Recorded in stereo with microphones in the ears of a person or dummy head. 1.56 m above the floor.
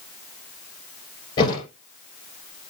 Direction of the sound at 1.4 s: 30° left (ahead or behind).